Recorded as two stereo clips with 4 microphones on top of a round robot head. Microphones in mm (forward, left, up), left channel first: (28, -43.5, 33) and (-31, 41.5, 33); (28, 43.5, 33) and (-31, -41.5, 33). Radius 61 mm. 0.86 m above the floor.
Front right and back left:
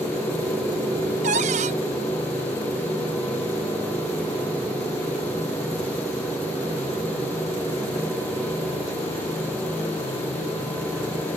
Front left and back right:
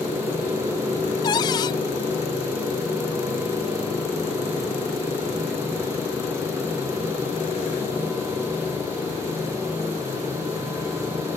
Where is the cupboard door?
105° left.